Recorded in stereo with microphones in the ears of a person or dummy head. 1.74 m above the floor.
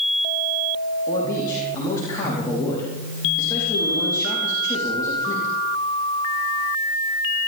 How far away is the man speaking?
About 4.5 m.